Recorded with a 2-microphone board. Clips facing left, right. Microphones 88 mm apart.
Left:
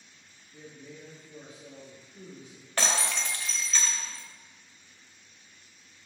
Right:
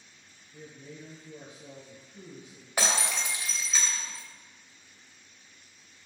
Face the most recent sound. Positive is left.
turn(degrees=-10)  # may be behind; listen again after turning